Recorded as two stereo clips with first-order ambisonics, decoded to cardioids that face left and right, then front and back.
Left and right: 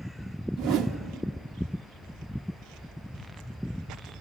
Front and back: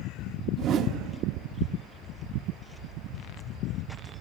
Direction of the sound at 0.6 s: 125° right.